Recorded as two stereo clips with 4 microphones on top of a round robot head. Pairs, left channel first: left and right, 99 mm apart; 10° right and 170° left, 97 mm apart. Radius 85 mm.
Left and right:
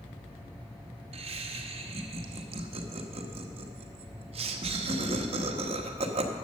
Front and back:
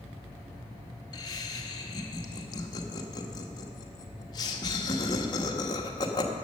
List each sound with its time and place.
1.1 s laughter: 65° right, 1.1 m